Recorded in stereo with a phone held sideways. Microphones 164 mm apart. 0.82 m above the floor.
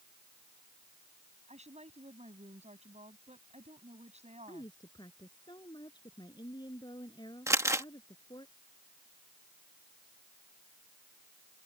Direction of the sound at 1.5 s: 45° right (ahead or behind).